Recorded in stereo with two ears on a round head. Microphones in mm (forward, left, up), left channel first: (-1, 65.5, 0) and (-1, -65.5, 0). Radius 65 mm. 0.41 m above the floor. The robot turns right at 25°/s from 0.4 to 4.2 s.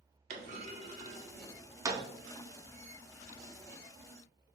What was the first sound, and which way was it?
A clunk, 55° right (ahead or behind).